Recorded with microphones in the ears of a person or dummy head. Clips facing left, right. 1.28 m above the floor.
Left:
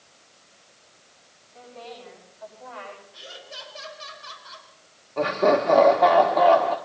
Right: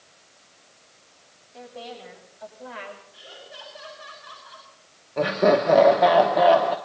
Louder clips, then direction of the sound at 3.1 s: Left 1 dB; 30° left (ahead or behind).